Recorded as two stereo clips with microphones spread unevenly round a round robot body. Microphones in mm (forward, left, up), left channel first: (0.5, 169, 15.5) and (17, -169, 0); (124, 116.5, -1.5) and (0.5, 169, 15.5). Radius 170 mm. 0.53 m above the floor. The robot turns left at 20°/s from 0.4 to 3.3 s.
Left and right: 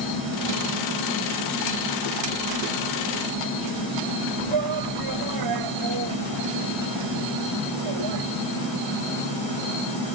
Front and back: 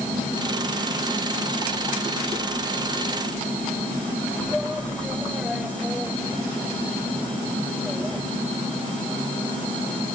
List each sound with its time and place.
4.5 s a shout: 115° right